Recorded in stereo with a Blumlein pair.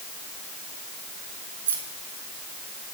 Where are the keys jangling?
70° right, 1.6 m.